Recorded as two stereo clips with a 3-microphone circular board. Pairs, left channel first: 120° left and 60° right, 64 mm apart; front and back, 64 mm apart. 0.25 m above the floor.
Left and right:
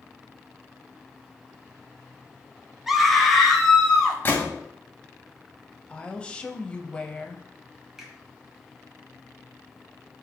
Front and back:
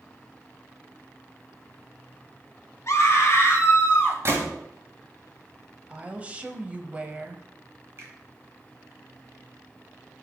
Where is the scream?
25° left, 2.0 m; by 4.2 s 45° left, 2.5 m.